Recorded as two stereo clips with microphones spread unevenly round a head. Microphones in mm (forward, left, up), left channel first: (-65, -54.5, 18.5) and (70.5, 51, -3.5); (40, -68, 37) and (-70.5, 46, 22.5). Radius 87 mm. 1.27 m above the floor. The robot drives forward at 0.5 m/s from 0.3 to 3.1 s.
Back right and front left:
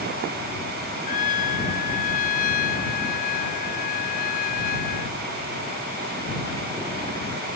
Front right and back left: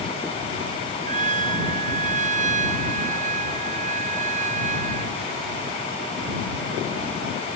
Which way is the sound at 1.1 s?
Straight behind.